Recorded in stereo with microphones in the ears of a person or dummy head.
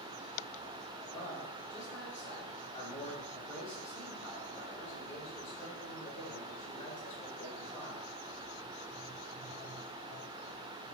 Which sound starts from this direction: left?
A man speaking, at 1.0 s.